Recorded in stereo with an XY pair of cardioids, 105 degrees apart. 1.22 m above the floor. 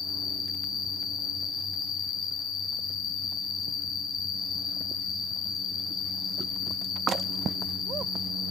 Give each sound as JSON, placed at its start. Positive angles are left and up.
{"t": 0.0, "sound": "an insect", "azimuth_deg": 60, "distance_m": 1.0}